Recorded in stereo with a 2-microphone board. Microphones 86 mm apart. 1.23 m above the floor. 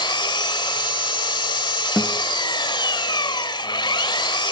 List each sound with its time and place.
0.0 s an engine running: 60° left (ahead or behind), 2 m
2.0 s a guitar: 5° right (ahead or behind), 1.5 m